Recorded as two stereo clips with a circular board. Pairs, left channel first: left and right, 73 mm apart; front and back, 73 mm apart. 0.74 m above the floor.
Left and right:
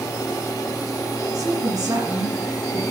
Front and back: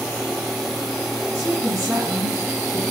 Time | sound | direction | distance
1.3 | a woman speaking | 130° right | 8.5 m